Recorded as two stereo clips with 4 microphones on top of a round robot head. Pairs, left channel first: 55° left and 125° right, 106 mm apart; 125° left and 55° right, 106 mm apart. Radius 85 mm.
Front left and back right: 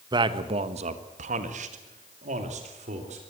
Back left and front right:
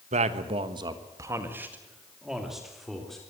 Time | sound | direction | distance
0.1 | a man speaking | 75° right | 1.4 m